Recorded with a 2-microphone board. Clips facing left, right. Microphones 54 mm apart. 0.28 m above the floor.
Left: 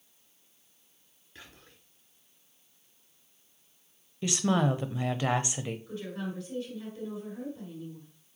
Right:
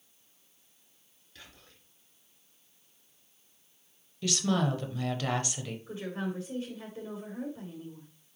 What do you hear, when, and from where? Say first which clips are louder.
1.4 s whispering: left 2 dB; 30° left (ahead or behind), 3.5 m
4.2 s a woman speaking: left 2 dB; 20° left (ahead or behind), 0.9 m
5.9 s a woman speaking: right 1 dB; 25° right (ahead or behind), 4 m